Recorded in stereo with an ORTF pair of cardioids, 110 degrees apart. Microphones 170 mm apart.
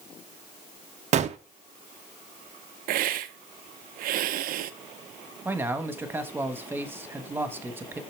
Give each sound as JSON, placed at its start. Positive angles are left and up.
{"t": 1.1, "sound": "a gunshot", "azimuth_deg": -45, "distance_m": 0.7}
{"t": 2.9, "sound": "a hiss", "azimuth_deg": -65, "distance_m": 0.6}
{"t": 5.5, "sound": "a man speaking", "azimuth_deg": -15, "distance_m": 1.3}